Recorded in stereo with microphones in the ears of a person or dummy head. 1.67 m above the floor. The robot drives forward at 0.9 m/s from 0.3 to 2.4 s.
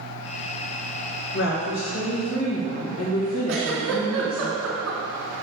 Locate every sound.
1.3 s a woman speaking: 70° left (ahead or behind), 1.8 m; by 4.5 s 75° left (ahead or behind), 1.8 m
3.5 s a giggle: 65° right (ahead or behind), 2.5 m